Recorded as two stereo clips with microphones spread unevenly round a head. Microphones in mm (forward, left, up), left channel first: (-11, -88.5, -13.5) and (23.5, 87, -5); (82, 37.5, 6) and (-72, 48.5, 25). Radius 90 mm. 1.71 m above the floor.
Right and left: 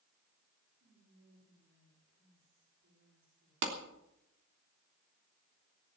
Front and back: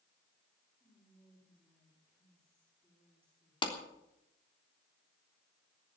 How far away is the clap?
About 3.5 m.